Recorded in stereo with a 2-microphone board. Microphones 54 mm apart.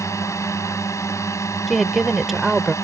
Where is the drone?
70° left (ahead or behind).